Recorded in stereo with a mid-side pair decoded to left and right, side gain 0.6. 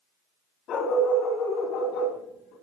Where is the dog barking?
60° left, 3.5 m; by 2.5 s 75° left, 4.5 m.